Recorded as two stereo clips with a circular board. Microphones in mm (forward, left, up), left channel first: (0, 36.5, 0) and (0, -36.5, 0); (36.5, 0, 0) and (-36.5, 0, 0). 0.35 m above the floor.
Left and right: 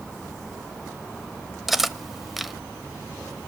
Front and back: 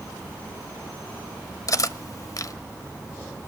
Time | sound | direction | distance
1.7 | cutlery clinking | 5° right | 0.8 m